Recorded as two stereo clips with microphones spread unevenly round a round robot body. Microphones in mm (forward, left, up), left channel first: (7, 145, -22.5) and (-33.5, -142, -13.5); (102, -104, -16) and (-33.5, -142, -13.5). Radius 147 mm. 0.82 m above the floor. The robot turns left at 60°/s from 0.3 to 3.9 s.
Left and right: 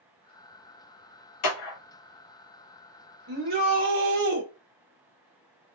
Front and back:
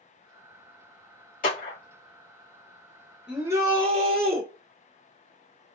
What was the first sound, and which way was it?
A clap, 50° left.